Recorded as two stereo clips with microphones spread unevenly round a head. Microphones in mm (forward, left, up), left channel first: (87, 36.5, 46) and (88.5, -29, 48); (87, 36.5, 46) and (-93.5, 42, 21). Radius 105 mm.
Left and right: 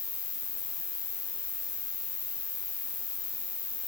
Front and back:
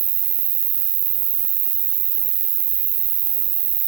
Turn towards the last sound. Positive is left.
turn(degrees=145)